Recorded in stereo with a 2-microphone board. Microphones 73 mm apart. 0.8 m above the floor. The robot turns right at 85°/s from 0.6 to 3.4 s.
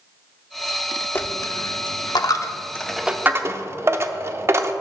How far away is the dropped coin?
About 0.6 m.